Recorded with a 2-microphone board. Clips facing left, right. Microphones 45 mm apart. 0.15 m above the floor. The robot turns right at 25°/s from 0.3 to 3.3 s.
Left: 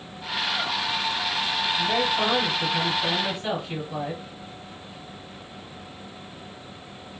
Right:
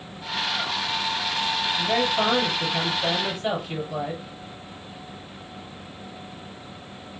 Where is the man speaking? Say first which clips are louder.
Right 1 dB; 35° right, 2.5 m; by 4.2 s straight ahead, 2.5 m.